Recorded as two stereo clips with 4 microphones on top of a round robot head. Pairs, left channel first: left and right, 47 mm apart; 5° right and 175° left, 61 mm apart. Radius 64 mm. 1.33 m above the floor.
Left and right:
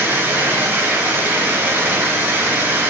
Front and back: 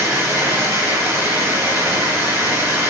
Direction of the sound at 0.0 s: 105° right.